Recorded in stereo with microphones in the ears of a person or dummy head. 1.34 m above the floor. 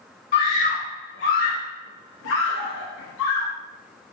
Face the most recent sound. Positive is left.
turn(degrees=70)  # may be behind; listen again after turning